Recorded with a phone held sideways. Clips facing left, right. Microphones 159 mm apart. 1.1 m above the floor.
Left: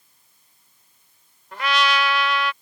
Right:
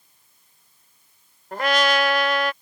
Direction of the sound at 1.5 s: 50° right (ahead or behind).